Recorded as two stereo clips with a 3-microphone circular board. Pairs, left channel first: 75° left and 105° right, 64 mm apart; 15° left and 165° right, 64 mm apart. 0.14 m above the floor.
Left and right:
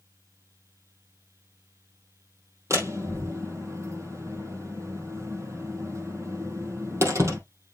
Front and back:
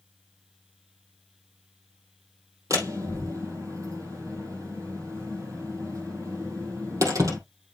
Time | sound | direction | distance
2.7 | a door slam | 140° right | 2.5 m